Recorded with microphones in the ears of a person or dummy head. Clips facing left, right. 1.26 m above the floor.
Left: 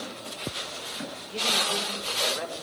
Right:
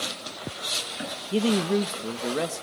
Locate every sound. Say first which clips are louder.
1.3 s a woman speaking: right 11 dB; 50° right (ahead or behind), 0.8 m